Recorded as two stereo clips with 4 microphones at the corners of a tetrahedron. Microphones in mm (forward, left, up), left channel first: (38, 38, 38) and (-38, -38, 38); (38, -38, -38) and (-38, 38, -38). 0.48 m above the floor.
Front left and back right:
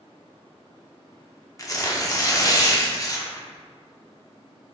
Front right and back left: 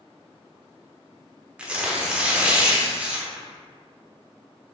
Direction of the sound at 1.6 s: 70° left.